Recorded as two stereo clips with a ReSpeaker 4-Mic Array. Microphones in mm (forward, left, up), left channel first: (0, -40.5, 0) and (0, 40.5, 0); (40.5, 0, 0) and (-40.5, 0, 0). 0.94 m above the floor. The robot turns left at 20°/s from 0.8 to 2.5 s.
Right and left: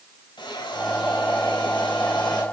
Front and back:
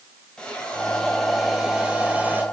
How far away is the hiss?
About 3.5 m.